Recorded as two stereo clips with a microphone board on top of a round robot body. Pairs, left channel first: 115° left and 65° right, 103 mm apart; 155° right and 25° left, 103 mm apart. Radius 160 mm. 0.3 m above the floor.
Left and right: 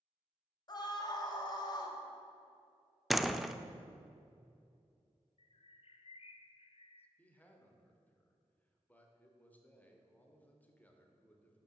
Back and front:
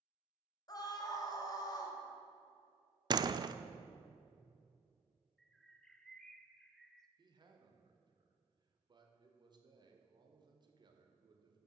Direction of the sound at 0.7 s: 155° left.